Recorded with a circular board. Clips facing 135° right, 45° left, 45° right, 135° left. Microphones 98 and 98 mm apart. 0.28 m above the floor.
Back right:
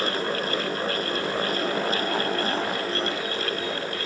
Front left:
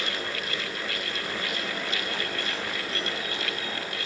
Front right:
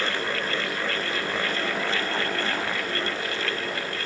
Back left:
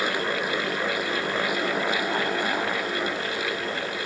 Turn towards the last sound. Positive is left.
No sound to turn to.